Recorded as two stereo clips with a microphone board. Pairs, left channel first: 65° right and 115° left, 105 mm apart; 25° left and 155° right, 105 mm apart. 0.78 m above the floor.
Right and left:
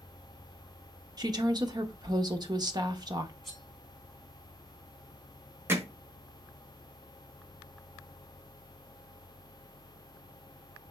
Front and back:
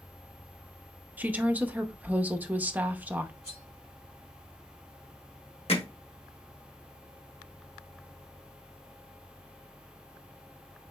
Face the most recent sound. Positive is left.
turn(degrees=45)